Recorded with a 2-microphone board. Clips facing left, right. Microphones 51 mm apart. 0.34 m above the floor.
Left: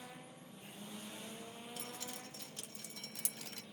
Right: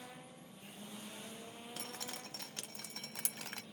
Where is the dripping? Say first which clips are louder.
Right 3 dB; 65° right (ahead or behind), 0.8 m.